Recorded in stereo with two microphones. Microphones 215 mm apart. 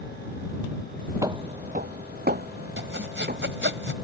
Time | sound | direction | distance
1.2 | footsteps | 15° right (ahead or behind) | ?
2.8 | sawing | 65° right (ahead or behind) | ?